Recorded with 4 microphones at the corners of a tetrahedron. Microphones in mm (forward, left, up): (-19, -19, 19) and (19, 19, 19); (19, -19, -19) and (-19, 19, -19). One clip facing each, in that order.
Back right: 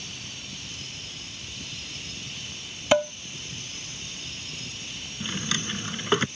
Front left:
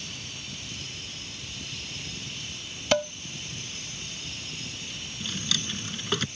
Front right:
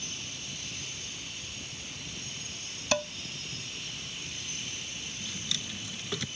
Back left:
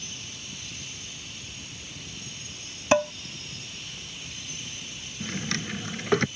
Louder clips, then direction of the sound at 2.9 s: Back right 4 dB, back left 9 dB; 160° left.